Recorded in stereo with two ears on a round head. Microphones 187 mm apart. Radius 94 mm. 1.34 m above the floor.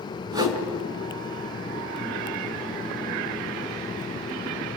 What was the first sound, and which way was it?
A whoosh, 20° right (ahead or behind).